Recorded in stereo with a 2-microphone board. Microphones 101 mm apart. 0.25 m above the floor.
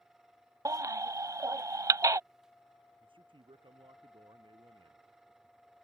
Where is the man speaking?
60° right (ahead or behind).